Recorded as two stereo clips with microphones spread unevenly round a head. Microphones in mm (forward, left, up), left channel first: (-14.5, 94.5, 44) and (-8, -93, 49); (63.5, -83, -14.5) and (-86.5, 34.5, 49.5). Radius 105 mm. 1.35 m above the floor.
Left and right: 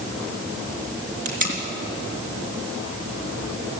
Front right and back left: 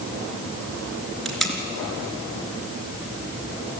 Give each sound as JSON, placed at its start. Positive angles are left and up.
{"t": 1.2, "sound": "tape being pulled", "azimuth_deg": -135, "distance_m": 4.0}